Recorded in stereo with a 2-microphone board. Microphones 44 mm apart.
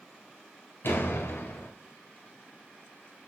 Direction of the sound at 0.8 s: 60° left (ahead or behind).